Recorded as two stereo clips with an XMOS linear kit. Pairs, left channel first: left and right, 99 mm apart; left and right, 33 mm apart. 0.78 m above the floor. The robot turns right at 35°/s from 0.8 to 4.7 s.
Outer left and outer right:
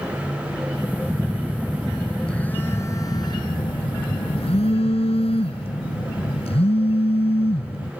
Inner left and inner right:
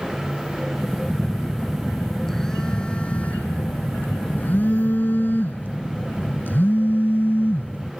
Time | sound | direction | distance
1.1 | a phone buzzing | 30° right | ?